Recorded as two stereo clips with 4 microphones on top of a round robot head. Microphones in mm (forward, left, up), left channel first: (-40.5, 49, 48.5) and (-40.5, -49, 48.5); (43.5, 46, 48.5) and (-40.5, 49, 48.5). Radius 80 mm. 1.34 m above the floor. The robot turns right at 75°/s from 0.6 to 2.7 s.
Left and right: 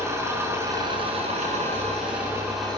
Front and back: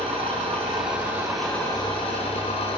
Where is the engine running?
150° right, 6 m; by 2.8 s 5° left, 6 m.